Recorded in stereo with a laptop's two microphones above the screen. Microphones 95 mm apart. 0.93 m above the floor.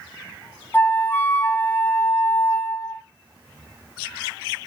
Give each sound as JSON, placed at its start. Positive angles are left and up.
{"t": 0.7, "sound": "a flute", "side_deg": 15, "distance_m": 0.6}